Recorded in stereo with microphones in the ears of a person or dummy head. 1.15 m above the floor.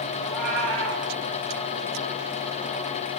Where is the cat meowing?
70° right (ahead or behind), 3 m.